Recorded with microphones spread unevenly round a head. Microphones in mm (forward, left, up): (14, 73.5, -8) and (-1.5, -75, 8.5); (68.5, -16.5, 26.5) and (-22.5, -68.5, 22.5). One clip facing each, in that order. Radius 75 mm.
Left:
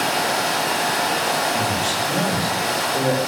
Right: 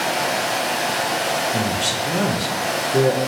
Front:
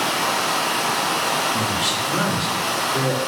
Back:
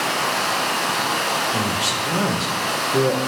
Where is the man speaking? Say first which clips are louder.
Even, even; 95° right, 0.8 m.